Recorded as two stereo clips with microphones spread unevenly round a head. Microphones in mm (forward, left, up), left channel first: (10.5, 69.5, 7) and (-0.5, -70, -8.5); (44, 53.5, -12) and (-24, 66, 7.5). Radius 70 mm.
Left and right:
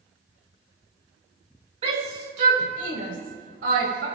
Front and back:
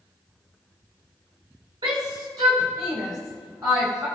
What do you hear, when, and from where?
1.8 s a shout: 145° right, 4 m; by 4.1 s 120° right, 5.5 m